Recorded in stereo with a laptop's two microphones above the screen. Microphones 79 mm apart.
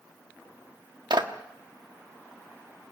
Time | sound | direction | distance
1.1 | a clap | 80° right | 1.4 m